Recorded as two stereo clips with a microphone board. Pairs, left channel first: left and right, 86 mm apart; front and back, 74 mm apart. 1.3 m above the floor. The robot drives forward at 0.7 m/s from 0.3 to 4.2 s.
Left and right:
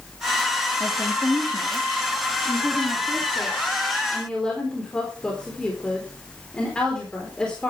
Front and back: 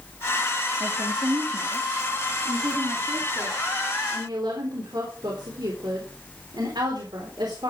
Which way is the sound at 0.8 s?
155° left.